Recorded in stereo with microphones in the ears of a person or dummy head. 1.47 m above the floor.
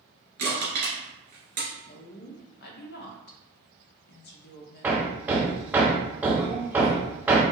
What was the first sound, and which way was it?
Crushing, 55° right (ahead or behind).